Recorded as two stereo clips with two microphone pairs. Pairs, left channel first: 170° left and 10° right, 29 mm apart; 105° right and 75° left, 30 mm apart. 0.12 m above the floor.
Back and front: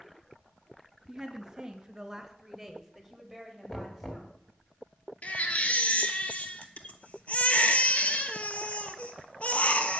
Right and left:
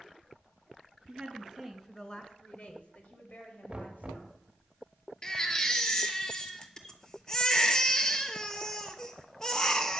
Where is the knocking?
110° left, 1.7 m.